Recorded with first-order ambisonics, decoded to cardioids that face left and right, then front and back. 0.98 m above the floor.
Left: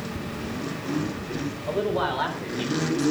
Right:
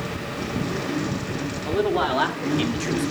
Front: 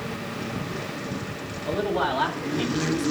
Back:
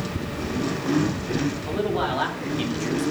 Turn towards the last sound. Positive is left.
turn(degrees=-100)